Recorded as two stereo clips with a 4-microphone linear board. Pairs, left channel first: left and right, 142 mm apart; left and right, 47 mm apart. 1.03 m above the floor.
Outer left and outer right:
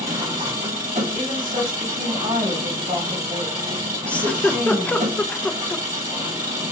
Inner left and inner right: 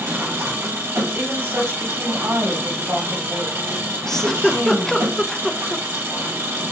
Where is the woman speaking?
70° right (ahead or behind), 1.8 m.